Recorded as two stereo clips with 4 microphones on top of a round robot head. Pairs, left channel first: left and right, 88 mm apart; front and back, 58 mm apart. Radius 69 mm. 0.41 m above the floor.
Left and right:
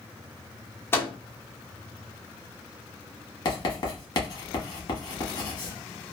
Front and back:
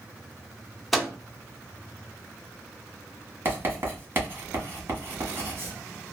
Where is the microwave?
90° left, 0.7 m.